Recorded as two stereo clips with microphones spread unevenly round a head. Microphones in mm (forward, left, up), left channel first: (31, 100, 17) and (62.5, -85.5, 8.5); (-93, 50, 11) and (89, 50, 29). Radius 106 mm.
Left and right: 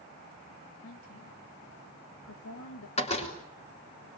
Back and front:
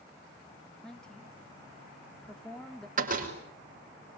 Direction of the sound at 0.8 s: 95° left.